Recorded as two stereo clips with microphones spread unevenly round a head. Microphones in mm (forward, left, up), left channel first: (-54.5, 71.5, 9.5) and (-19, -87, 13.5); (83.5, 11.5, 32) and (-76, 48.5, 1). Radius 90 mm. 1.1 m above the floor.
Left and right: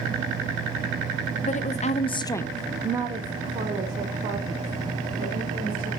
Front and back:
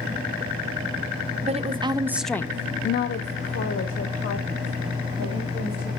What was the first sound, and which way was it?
A woman speaking, 135° left.